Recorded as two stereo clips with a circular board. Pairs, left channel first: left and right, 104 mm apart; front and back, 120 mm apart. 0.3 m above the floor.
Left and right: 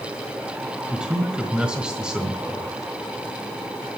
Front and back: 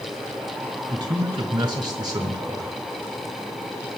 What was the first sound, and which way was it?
A man speaking, 165° right.